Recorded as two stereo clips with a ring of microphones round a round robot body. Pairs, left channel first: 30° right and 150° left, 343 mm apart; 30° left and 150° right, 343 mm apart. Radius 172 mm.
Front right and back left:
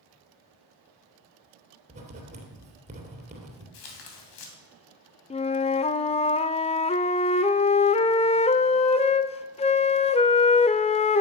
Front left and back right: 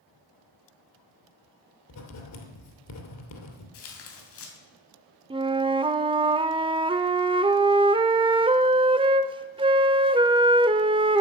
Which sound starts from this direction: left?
Writing, at 1.9 s.